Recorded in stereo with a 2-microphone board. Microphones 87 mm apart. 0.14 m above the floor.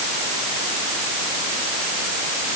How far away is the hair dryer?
No hair dryer in this recording.